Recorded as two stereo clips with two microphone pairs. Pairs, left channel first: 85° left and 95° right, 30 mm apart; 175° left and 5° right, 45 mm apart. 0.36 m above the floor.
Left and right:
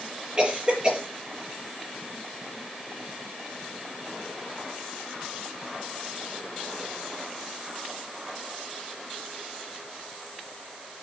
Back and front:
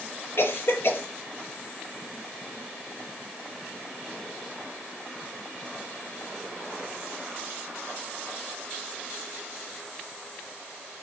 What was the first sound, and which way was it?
A cough, 160° right.